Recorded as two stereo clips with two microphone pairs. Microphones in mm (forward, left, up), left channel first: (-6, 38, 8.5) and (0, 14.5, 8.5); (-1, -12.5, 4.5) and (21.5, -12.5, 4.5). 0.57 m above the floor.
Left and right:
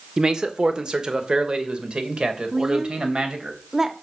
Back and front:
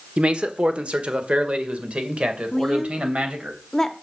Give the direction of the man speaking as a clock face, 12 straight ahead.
1 o'clock.